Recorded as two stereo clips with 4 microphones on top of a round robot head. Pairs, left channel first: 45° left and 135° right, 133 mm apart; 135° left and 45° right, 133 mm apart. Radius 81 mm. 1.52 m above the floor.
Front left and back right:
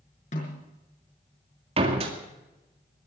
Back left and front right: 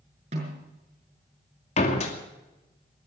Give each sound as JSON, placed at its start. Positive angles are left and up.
{"t": 0.3, "sound": "a snare drum", "azimuth_deg": 0, "distance_m": 6.0}
{"t": 1.8, "sound": "a door slam", "azimuth_deg": 175, "distance_m": 2.5}